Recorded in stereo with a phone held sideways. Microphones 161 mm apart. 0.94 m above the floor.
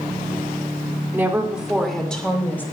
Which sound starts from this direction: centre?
A woman speaking, at 1.1 s.